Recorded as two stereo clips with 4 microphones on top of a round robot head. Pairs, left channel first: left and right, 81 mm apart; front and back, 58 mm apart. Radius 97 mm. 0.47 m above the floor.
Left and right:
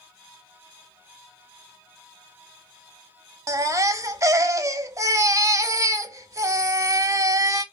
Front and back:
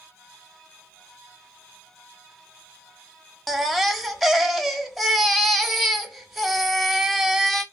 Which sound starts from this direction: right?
A baby crying, at 3.5 s.